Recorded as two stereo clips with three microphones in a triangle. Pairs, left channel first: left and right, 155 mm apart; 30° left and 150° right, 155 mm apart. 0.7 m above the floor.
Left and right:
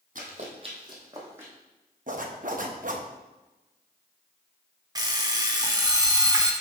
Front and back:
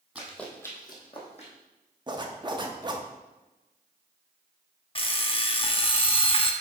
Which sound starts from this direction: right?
A zipper, at 2.1 s.